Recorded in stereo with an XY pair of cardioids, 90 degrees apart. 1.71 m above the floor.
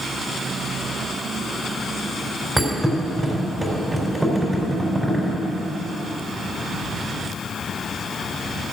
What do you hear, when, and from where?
2.6 s a thud: 10° right, 4 m